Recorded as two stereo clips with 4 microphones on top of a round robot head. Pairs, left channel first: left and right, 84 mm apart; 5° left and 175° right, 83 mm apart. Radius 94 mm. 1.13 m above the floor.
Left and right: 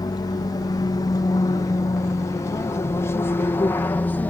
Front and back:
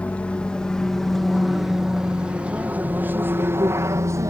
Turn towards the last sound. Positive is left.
turn(degrees=155)